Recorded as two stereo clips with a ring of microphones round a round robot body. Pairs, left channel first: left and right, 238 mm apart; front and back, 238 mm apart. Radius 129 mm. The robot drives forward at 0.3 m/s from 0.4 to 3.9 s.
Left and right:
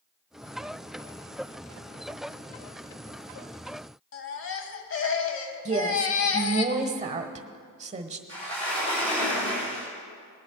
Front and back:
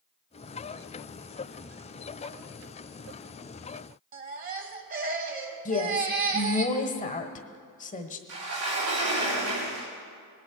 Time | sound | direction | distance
4.1 | a baby crying | 125° left | 0.9 m
5.7 | a woman speaking | 45° right | 1.1 m
8.3 | a sliding door | 160° left | 4 m